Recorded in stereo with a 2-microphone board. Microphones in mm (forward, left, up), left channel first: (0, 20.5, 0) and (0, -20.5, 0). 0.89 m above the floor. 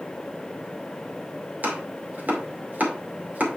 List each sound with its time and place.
1.6 s chopping: 40° right (ahead or behind), 2.5 m